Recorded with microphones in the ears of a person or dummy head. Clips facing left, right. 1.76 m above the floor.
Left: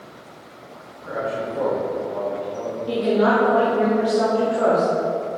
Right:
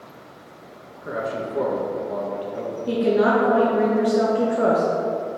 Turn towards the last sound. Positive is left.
turn(degrees=-20)  # may be behind; listen again after turning